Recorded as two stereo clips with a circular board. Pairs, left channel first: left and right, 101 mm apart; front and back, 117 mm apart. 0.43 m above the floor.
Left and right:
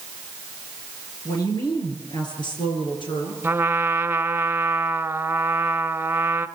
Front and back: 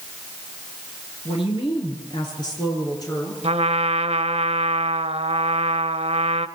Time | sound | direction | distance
1.2 | a woman speaking | 40° left | 8 m
3.4 | a trumpet | 160° right | 1.1 m